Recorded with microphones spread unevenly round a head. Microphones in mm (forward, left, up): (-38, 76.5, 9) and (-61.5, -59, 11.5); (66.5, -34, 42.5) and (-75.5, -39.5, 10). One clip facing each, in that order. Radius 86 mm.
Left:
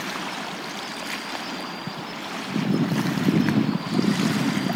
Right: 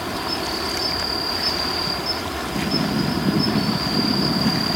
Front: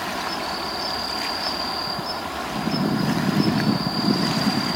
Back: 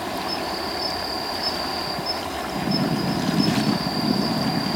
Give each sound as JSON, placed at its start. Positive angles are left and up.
{"t": 0.0, "sound": "an insect", "azimuth_deg": -100}